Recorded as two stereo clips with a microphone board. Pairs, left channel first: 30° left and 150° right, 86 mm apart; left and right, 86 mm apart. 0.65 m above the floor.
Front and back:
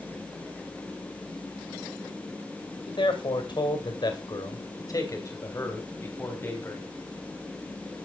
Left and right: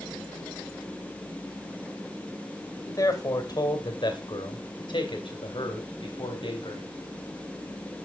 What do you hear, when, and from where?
2.9 s a man speaking: 45° left, 2.5 m; by 6.9 s 95° left, 3.5 m